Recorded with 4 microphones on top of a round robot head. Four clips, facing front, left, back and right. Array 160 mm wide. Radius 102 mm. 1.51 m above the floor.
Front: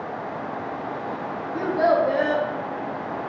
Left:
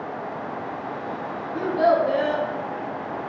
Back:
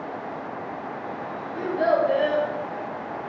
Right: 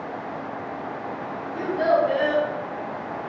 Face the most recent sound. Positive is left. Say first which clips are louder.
# left 1 dB, front 2 dB
turn(degrees=30)